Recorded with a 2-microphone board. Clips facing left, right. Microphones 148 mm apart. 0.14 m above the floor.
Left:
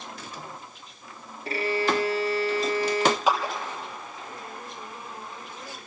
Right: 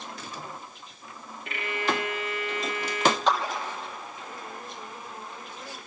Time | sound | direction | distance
1.4 | a violin | 35° left (ahead or behind) | 1.0 m
3.3 | a clap | 5° left (ahead or behind) | 3.5 m